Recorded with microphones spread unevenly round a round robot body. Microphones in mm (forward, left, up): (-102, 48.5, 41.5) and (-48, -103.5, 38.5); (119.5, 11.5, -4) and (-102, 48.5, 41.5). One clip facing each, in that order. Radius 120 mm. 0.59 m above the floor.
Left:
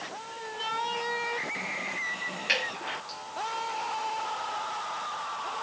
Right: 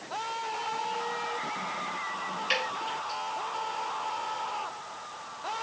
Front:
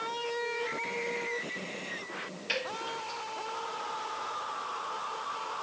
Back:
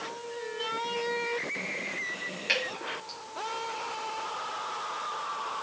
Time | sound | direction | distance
2.5 | dripping | 115° left | 4.5 m